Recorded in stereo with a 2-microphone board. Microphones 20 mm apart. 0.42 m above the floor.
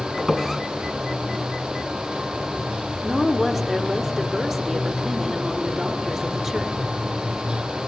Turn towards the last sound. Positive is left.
turn(degrees=-15)  # may be behind; listen again after turning